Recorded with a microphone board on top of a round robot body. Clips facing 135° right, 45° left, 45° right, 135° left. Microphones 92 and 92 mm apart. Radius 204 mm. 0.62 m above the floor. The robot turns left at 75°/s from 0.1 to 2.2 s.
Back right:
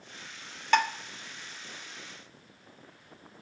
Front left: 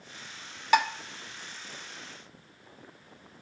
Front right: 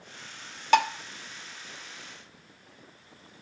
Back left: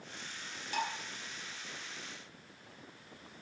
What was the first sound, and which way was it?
Dishes clattering, 35° right.